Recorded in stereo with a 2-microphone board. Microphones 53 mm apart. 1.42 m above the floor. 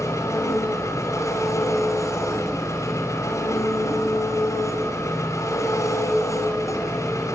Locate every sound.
0.0 s an engine running: 80° left, 6 m